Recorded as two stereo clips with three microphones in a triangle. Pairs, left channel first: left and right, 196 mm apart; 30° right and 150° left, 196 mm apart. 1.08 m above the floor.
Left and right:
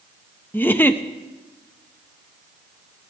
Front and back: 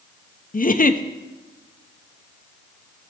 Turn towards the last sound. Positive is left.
turn(degrees=10)